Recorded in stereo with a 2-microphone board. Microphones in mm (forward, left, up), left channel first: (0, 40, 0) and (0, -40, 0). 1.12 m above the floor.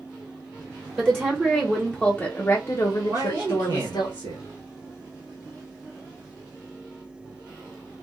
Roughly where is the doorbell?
I don't hear a doorbell.